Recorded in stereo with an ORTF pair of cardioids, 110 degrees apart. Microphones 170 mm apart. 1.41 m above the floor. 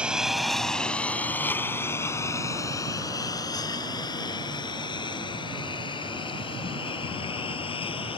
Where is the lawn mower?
5° right; by 8.2 s 30° left.